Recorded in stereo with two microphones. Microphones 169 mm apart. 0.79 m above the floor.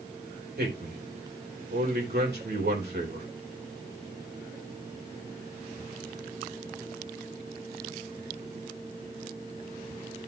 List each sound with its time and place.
0.6 s a man speaking: 75° right (ahead or behind), 4 m